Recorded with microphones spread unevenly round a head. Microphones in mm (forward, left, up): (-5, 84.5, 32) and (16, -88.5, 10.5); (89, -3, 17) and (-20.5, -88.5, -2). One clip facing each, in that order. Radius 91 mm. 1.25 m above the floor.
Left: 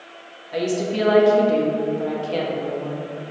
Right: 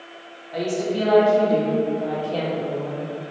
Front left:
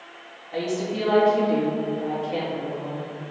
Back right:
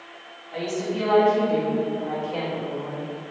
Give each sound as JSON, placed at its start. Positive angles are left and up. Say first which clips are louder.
{"t": 0.5, "sound": "a woman speaking", "louder": "left 1 dB, front left 1 dB", "azimuth_deg": 110, "distance_m": 1.9}